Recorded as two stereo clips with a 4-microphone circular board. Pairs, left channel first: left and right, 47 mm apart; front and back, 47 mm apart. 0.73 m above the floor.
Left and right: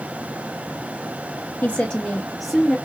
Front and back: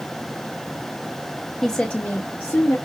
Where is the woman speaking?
80° left, 0.6 m; by 2.8 s straight ahead, 1.3 m.